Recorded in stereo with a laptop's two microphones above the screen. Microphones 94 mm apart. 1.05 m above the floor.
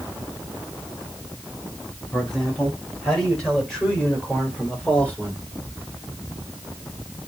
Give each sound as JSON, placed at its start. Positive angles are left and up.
{"t": 2.1, "sound": "a man speaking", "side_deg": 10, "distance_m": 5.5}